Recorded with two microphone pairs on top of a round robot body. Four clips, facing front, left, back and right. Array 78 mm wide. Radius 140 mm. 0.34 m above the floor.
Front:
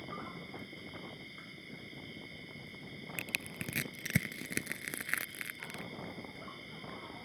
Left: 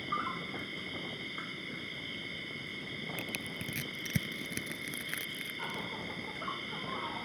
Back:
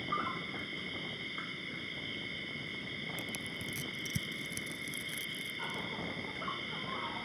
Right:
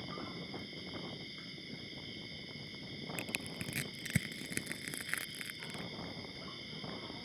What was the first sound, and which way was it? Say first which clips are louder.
An insect: left 9 dB, back 8 dB; 125° left.